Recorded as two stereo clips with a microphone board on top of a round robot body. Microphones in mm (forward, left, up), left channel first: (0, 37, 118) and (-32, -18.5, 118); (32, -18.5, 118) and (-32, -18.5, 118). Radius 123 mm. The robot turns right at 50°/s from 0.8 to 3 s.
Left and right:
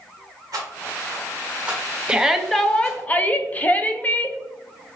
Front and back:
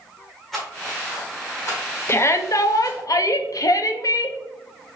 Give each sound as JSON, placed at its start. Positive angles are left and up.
{"t": 0.5, "sound": "a rattle", "azimuth_deg": -90, "distance_m": 1.6}
{"t": 2.1, "sound": "a shout", "azimuth_deg": -45, "distance_m": 0.7}